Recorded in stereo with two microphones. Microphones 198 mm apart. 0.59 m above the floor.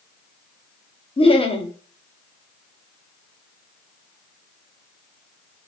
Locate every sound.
1.2 s laughter: 30° left (ahead or behind), 0.8 m